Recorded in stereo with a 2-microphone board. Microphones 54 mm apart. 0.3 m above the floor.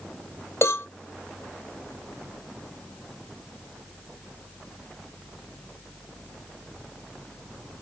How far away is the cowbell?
About 1.3 m.